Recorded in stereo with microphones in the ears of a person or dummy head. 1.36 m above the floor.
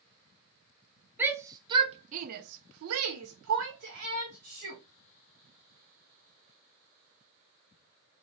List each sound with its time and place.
1.2 s a shout: 10° right (ahead or behind), 1.0 m; by 4.8 s 50° right (ahead or behind), 1.5 m